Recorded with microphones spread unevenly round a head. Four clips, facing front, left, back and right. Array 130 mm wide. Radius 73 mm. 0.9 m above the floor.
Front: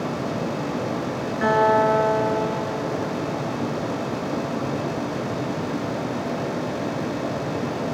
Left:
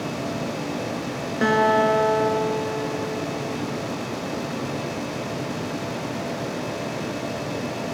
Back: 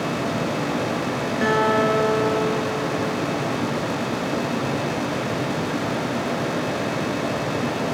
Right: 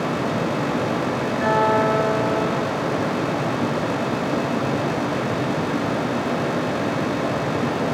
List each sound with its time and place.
1.4 s a guitar: 105° left, 5.5 m